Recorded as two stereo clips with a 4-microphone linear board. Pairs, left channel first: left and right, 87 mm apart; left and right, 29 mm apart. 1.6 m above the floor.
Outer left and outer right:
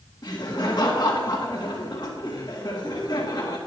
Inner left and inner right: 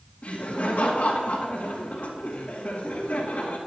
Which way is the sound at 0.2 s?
50° left (ahead or behind).